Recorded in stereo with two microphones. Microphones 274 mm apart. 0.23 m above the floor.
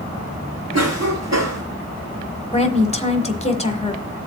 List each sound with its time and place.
0.7 s a cough: 55° right (ahead or behind), 2.5 m
2.5 s a woman speaking: 25° left (ahead or behind), 1.3 m